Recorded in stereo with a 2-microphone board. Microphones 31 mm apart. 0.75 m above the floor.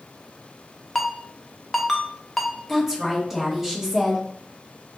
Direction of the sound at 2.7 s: 10° right (ahead or behind).